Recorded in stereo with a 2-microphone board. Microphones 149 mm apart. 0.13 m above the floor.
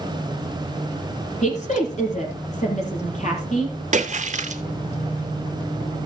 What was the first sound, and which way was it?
A woman speaking, 55° left (ahead or behind).